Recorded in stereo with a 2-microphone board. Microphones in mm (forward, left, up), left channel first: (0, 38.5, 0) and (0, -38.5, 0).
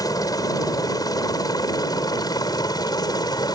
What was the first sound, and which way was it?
A helicopter, 50° left (ahead or behind).